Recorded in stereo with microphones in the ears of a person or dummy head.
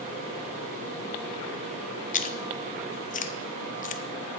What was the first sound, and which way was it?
Chewing, 40° left (ahead or behind).